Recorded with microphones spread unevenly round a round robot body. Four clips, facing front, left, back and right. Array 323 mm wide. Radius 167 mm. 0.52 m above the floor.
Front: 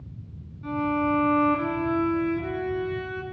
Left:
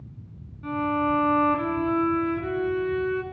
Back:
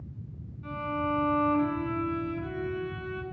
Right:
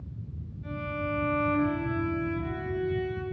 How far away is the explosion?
I don't hear an explosion.